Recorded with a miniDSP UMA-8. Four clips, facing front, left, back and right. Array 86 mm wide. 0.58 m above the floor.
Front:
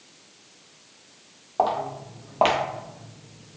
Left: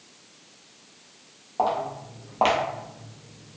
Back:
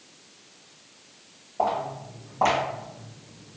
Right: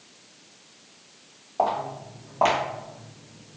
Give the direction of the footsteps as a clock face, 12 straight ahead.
11 o'clock.